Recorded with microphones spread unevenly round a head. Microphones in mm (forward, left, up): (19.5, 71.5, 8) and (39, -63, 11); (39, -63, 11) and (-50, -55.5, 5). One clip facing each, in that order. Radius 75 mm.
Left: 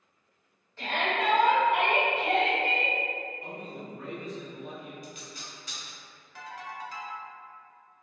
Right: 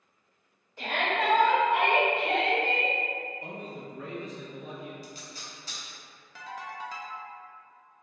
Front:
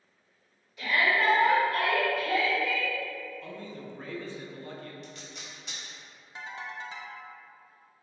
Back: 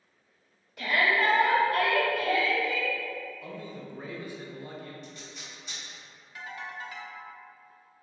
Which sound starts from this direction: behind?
A shout, at 0.8 s.